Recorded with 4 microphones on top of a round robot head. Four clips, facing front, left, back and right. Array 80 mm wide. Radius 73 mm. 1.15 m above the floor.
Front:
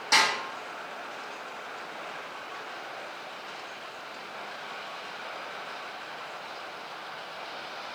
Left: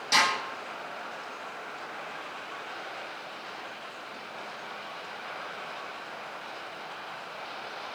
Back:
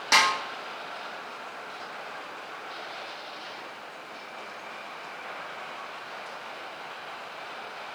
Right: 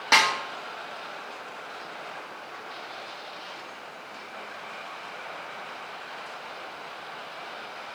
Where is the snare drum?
105° right, 2 m.